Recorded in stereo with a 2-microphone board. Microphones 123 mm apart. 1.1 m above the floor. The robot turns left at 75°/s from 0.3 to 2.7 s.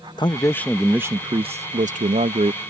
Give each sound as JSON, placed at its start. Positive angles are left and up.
{"t": 0.2, "sound": "a man speaking", "azimuth_deg": 35}